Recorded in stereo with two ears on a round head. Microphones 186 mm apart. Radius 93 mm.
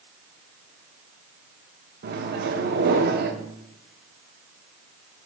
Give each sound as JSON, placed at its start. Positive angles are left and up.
{"t": 2.0, "sound": "a microwave", "side_deg": -50, "distance_m": 0.9}